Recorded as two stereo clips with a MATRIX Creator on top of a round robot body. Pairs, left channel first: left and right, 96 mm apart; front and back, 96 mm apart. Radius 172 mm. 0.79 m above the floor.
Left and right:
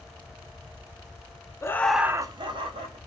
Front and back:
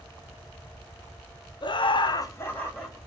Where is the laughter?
30° left, 0.6 m; by 3.0 s 80° right, 1.0 m.